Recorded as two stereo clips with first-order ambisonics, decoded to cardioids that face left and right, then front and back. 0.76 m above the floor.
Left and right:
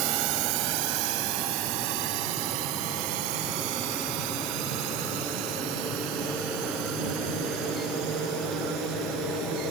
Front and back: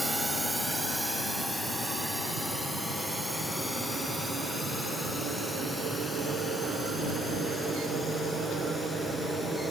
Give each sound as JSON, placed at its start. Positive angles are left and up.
{"t": 0.0, "sound": "a drone", "azimuth_deg": -100}